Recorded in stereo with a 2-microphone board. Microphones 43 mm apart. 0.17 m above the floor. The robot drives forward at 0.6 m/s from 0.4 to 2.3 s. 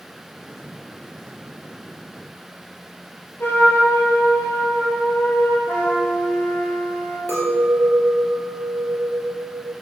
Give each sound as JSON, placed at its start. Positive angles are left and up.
{"t": 3.4, "sound": "a trumpet", "side_deg": 60, "distance_m": 2.5}
{"t": 5.7, "sound": "a trumpet", "side_deg": 50, "distance_m": 2.5}
{"t": 7.3, "sound": "a clink", "side_deg": 60, "distance_m": 2.5}